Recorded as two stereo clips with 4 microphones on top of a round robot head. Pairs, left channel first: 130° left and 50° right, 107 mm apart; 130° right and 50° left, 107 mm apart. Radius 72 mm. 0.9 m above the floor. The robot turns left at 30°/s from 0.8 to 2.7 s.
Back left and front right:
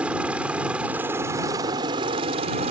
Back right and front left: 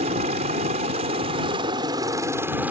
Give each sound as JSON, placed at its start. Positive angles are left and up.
{"t": 0.0, "sound": "a helicopter", "azimuth_deg": 30}